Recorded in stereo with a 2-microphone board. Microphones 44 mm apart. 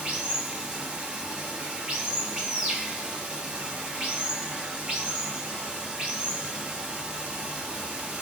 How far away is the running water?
About 0.8 m.